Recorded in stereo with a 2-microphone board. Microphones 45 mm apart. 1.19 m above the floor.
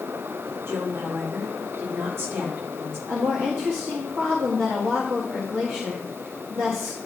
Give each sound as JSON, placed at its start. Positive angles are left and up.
{"t": 0.7, "sound": "a woman speaking", "side_deg": -65, "distance_m": 3.0}
{"t": 3.1, "sound": "a woman speaking", "side_deg": -75, "distance_m": 1.7}